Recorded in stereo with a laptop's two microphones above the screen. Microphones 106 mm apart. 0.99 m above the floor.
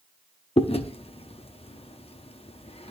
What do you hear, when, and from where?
0.6 s chewing: 70° left (ahead or behind), 0.7 m